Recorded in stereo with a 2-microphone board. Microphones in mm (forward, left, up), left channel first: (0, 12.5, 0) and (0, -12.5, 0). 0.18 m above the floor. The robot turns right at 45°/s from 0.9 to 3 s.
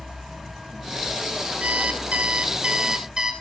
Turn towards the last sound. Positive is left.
turn(degrees=-35)